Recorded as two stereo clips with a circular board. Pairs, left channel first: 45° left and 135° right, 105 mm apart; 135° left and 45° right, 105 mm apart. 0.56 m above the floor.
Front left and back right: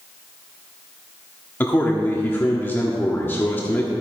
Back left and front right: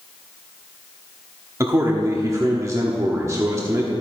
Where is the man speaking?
10° right, 1.2 m.